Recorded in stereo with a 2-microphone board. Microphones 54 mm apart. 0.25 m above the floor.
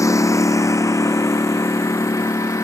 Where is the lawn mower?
90° left; by 2.6 s 80° left.